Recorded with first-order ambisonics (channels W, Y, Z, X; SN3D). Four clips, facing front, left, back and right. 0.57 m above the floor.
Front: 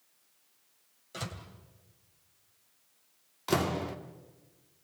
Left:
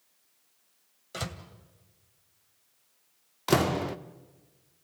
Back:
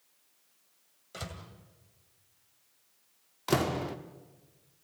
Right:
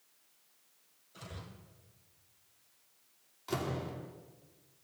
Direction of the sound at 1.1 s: 90° left.